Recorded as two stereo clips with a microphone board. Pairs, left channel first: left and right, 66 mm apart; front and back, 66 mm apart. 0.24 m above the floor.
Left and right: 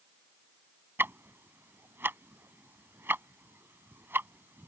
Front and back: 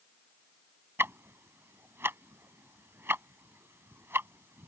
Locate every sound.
1.0 s ticking: 135° right